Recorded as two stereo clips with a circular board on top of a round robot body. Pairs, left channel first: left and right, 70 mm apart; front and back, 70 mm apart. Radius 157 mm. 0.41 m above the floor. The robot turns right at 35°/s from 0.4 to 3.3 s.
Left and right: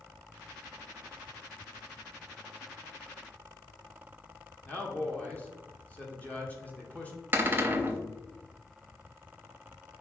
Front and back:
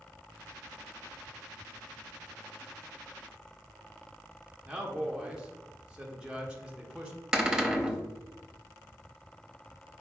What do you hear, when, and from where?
4.7 s a man speaking: 120° left, 1.1 m
7.3 s a cupboard door: 110° right, 0.9 m